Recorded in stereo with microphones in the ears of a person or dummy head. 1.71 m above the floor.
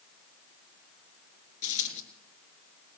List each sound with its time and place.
1.6 s a dropped coin: 45° left (ahead or behind), 3.5 m